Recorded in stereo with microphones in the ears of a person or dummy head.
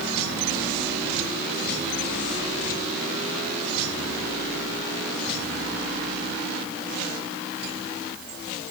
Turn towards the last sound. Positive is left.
No sound to turn to.